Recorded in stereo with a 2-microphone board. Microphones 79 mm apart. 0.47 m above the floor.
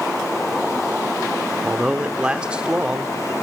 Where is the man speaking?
15° right (ahead or behind), 0.9 m.